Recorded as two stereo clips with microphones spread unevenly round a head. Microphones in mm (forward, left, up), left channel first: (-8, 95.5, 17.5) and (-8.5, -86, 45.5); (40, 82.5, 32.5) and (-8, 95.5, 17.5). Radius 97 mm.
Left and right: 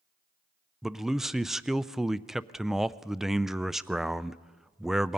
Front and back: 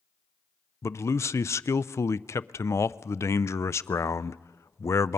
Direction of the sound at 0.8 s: 5° left.